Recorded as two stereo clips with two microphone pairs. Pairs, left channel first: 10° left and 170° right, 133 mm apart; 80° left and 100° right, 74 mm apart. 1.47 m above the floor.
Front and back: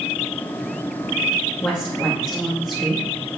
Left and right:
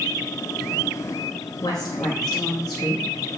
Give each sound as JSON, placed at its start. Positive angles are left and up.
{"t": 1.6, "sound": "a woman speaking", "azimuth_deg": 90, "distance_m": 2.0}